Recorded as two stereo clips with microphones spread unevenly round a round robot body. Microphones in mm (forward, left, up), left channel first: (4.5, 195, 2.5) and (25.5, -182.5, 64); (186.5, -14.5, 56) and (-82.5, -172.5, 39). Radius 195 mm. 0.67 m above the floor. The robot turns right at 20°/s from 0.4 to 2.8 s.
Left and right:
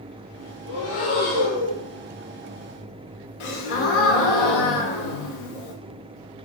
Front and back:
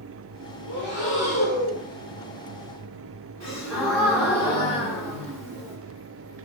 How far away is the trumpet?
No trumpet in this recording.